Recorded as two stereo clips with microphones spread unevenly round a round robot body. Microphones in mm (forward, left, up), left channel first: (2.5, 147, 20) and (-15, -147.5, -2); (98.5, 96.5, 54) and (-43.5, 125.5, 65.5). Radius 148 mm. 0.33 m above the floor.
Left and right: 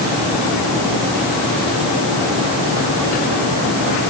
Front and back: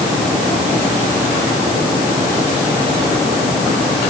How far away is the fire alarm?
No fire alarm in this recording.